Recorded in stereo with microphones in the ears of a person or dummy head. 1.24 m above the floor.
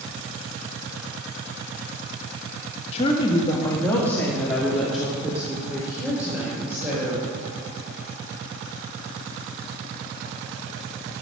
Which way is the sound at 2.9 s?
35° left (ahead or behind).